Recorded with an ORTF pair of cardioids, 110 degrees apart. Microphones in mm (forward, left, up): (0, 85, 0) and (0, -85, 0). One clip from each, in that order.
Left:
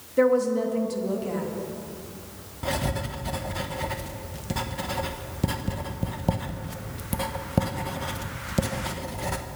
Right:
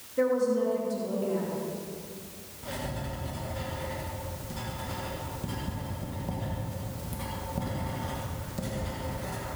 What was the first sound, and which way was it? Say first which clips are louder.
A woman speaking: left 4 dB; 40° left.